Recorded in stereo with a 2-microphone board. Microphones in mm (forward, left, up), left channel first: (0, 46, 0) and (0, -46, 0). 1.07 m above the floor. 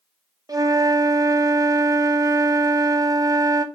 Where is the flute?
40° right (ahead or behind), 0.9 m.